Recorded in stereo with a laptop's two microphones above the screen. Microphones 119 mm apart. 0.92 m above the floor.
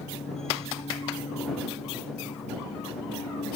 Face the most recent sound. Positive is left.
turn(degrees=85)